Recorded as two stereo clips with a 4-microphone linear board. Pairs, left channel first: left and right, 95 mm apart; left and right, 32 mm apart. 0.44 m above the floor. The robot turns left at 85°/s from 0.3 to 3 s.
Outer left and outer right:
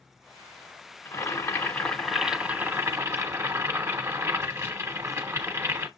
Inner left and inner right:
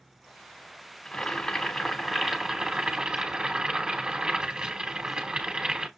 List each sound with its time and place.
1.1 s boiling: 25° left (ahead or behind), 1.3 m; by 5.9 s 25° right (ahead or behind), 1.3 m